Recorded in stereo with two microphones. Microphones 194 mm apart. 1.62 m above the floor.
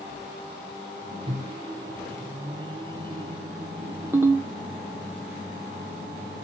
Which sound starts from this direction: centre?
A ringtone, at 4.1 s.